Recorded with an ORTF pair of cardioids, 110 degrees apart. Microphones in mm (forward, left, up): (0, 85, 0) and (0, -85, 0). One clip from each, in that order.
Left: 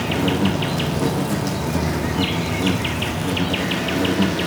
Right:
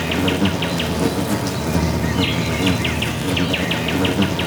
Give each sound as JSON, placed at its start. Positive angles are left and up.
{"t": 0.0, "sound": "an insect", "azimuth_deg": -20, "distance_m": 1.4}